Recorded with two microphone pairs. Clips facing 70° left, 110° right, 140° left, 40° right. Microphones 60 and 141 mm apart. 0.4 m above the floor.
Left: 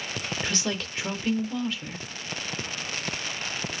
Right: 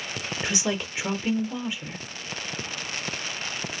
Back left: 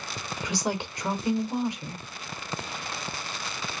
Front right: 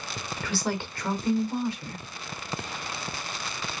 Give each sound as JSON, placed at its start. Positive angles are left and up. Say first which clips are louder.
{"t": 0.4, "sound": "a woman speaking", "louder": "right 4 dB, even", "azimuth_deg": -165, "distance_m": 0.8}